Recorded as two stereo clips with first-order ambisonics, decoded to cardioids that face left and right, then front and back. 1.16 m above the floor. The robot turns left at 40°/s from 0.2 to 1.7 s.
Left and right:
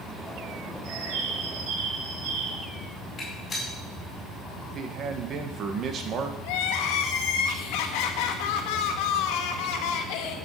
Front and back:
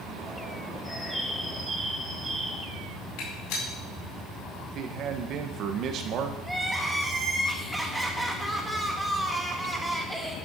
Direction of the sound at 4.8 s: 140° right.